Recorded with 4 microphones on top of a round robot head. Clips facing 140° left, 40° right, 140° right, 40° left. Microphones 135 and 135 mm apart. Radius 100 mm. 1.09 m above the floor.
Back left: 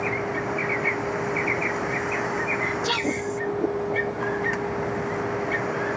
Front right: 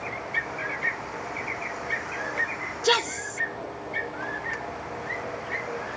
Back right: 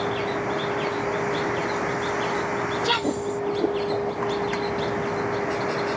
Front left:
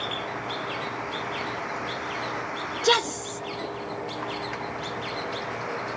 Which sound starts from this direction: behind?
A vehicle, at 0.0 s.